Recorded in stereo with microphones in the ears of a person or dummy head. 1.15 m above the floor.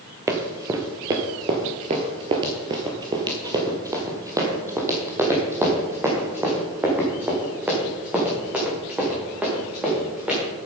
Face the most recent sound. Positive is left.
turn(degrees=-5)  # may be behind; listen again after turning